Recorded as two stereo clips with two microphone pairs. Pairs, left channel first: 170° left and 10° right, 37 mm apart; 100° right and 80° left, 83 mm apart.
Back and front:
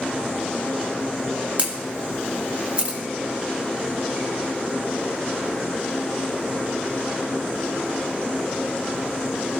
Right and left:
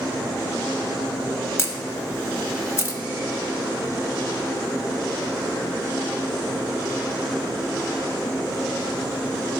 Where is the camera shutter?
55° right, 0.9 m.